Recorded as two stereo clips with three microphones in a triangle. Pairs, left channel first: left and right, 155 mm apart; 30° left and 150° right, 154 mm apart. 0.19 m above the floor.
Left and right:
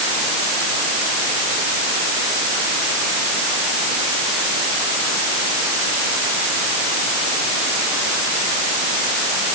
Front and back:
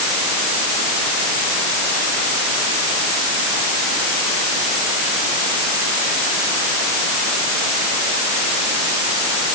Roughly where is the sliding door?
I don't hear a sliding door.